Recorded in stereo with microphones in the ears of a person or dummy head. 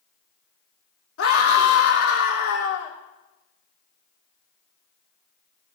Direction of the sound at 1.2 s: 75° left (ahead or behind).